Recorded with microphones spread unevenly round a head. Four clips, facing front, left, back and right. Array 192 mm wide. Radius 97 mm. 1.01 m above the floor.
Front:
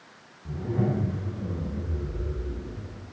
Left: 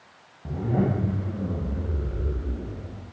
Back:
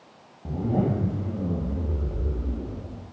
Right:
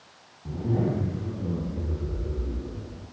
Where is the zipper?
150° left, 3.5 m.